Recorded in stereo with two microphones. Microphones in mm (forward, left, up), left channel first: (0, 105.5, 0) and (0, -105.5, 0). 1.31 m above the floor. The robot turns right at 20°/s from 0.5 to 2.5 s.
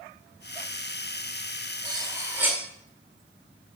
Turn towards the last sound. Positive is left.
turn(degrees=-10)  # may be behind; listen again after turning